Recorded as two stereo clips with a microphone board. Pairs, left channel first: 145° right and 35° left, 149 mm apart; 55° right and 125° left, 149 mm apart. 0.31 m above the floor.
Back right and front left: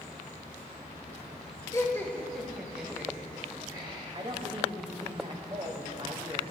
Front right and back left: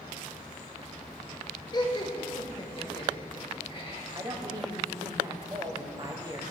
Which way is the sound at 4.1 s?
70° left.